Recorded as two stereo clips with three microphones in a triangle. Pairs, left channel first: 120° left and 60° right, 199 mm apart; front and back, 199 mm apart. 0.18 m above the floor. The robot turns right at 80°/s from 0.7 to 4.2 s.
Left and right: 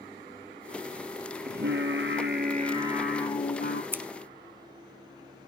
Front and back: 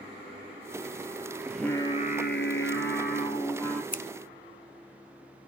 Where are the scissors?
15° left, 0.6 m; by 4.0 s 25° left, 0.6 m.